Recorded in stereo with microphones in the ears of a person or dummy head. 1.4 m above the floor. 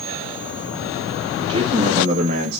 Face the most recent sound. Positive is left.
turn(degrees=-55)  # may be behind; listen again after turning